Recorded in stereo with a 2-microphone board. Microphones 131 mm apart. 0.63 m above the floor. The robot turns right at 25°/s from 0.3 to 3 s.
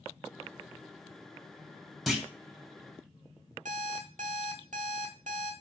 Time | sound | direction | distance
2.1 | a clunk | centre (ahead or behind) | 0.9 m
3.6 | an alarm clock | 80° right | 1.0 m